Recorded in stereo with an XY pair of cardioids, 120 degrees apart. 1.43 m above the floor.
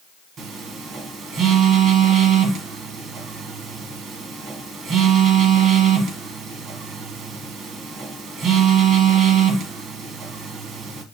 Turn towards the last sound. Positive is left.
turn(degrees=-55)